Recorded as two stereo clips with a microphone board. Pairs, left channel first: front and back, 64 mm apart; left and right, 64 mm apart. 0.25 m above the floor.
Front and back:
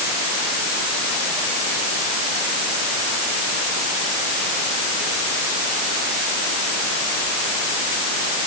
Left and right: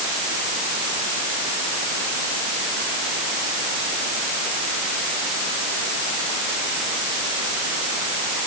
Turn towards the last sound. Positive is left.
No sound to turn to.